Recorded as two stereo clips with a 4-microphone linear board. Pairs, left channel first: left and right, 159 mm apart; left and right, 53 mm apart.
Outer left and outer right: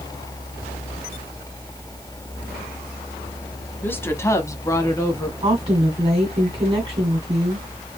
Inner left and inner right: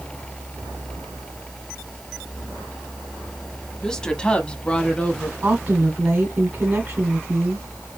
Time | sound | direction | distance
3.8 | a woman speaking | 10° left (ahead or behind) | 1.0 m
5.4 | a woman speaking | 35° right (ahead or behind) | 1.8 m